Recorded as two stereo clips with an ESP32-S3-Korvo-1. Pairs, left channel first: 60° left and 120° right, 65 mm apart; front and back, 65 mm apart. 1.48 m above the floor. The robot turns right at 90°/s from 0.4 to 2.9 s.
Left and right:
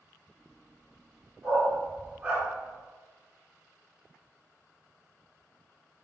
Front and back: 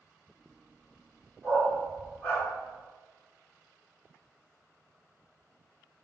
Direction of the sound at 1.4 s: 140° right.